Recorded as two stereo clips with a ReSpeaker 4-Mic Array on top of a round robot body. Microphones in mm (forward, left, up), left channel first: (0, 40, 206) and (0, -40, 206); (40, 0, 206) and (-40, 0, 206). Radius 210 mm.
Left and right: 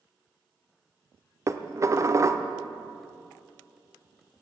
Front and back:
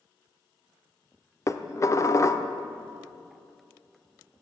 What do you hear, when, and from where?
1.5 s dishes clattering: 45° right, 1.0 m